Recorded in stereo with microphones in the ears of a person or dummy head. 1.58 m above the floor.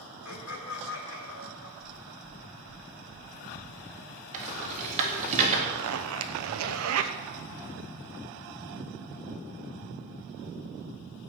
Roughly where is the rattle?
Right.